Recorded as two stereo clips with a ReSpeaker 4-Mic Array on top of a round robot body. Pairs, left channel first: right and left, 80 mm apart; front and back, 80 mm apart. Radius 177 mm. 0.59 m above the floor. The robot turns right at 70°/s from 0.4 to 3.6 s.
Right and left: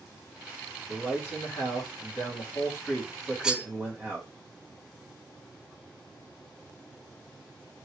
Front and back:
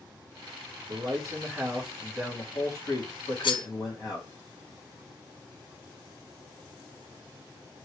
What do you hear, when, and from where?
0.9 s a man speaking: 170° right, 1.7 m; by 4.3 s 20° left, 1.7 m
3.4 s cutlery clinking: 10° left, 0.5 m; by 3.7 s 20° left, 0.5 m